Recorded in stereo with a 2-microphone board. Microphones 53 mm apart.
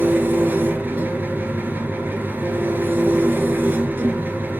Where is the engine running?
40° right (ahead or behind), 0.9 m.